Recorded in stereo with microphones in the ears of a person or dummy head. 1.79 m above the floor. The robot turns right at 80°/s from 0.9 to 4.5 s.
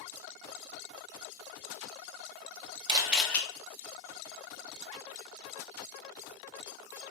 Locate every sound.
2.9 s a camera shutter: 30° right, 0.8 m; by 3.4 s 10° left, 0.8 m